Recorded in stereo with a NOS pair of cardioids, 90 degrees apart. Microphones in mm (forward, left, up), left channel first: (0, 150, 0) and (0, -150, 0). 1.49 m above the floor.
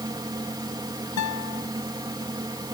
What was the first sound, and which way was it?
A fan, 15° right.